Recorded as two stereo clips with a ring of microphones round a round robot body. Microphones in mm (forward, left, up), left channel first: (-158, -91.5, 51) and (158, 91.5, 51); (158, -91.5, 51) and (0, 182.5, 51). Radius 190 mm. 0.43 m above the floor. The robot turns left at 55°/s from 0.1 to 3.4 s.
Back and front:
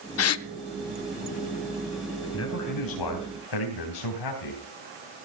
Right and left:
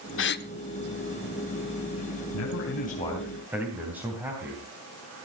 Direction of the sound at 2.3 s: 95° right.